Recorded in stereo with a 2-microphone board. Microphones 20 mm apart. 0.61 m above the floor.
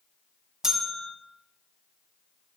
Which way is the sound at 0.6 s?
30° right (ahead or behind).